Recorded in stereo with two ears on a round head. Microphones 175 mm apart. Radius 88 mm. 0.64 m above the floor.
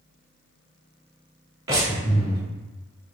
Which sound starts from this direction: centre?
Breathing, at 1.7 s.